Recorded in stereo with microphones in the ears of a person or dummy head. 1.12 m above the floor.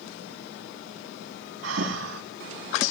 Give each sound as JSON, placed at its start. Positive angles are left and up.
{"t": 1.6, "sound": "breathing", "side_deg": -80, "distance_m": 4.5}